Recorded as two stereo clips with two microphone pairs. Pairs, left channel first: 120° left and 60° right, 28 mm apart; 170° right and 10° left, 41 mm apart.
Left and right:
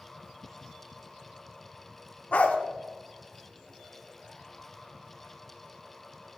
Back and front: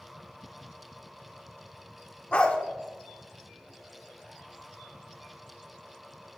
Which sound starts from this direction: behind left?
A dog barking, at 2.3 s.